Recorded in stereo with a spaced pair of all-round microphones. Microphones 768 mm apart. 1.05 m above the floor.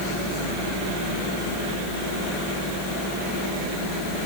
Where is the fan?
65° left (ahead or behind).